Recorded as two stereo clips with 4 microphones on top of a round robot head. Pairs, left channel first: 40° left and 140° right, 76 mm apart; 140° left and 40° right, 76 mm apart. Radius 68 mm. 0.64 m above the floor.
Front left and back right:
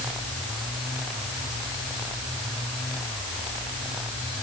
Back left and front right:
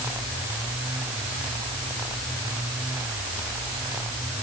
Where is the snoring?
I don't hear snoring.